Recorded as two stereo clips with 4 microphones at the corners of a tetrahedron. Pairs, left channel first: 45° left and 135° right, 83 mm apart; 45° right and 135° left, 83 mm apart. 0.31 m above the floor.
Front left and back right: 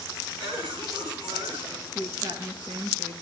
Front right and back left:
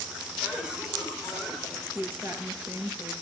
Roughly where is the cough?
Behind right.